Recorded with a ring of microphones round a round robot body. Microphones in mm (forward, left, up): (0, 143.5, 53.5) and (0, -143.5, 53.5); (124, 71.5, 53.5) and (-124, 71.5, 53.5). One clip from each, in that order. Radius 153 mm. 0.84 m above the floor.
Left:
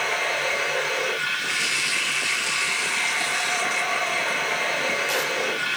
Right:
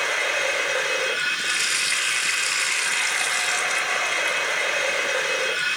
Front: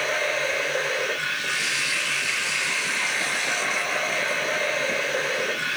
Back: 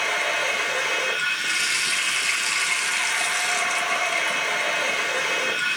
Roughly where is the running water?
Behind right.